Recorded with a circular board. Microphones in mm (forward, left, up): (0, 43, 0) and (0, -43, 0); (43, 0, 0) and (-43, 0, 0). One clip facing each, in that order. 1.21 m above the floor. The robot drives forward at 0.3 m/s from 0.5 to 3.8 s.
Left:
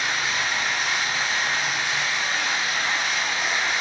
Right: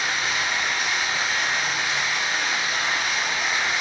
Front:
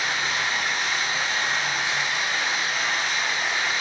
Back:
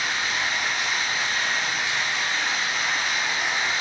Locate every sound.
0.0 s running water: 15° right, 1.1 m; by 3.8 s 150° right, 0.9 m